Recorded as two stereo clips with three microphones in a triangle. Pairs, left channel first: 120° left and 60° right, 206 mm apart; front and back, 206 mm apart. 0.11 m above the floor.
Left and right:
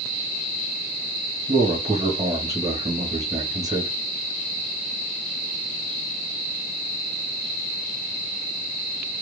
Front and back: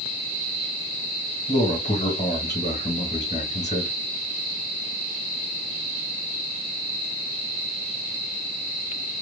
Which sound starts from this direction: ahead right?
A man speaking, at 1.5 s.